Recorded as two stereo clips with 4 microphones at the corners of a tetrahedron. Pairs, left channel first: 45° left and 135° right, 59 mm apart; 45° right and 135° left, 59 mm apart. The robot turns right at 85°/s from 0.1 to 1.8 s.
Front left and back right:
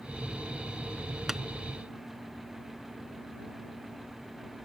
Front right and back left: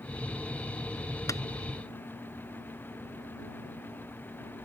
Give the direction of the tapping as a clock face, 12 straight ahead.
2 o'clock.